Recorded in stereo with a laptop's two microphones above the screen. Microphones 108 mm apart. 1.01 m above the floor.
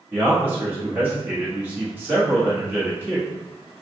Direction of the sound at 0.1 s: 20° right (ahead or behind).